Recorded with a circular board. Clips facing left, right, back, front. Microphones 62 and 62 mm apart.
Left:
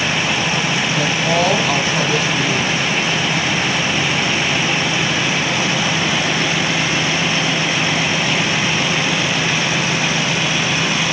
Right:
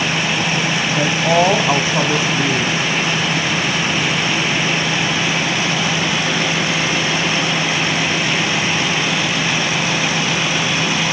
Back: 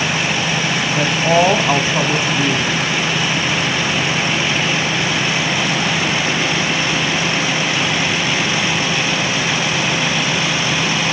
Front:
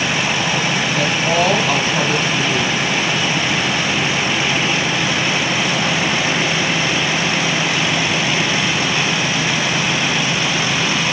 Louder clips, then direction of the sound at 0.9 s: Right 4 dB, back 4 dB; 135° right.